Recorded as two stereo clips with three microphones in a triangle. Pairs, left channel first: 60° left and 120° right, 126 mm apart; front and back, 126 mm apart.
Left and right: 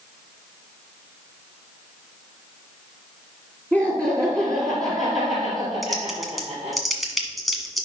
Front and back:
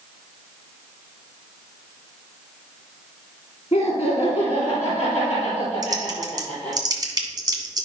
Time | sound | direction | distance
3.7 | laughter | 50° right | 2 m
5.8 | typing on a keyboard | 150° left | 1.7 m